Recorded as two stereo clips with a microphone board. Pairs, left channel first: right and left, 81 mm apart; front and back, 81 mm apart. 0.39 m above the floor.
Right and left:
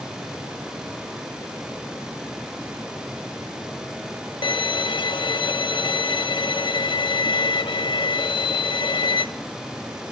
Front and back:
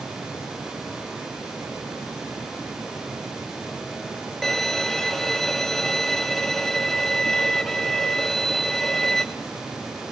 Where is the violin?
85° right, 0.7 m.